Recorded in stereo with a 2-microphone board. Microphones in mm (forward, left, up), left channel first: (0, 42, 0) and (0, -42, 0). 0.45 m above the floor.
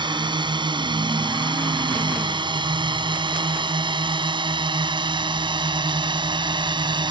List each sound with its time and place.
0.0 s a drone: 65° right (ahead or behind); by 7.1 s 70° right (ahead or behind)